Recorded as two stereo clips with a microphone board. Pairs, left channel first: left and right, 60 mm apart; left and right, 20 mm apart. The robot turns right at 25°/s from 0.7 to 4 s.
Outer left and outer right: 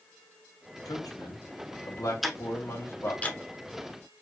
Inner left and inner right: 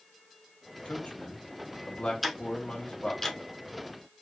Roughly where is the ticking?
Centre.